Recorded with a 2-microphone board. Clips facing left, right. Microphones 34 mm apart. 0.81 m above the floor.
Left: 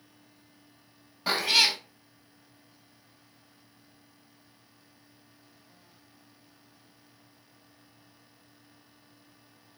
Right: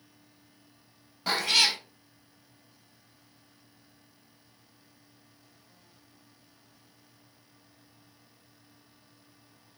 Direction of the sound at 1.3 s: 5° left (ahead or behind).